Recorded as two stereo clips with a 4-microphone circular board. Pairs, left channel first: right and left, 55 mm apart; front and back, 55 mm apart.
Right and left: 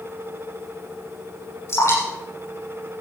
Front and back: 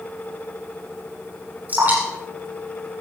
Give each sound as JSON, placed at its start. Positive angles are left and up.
{"t": 1.7, "sound": "dripping", "azimuth_deg": -120, "distance_m": 7.0}